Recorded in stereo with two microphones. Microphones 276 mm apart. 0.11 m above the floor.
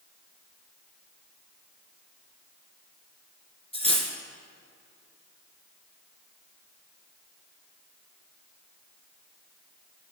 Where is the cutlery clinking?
20° left (ahead or behind), 1.1 m.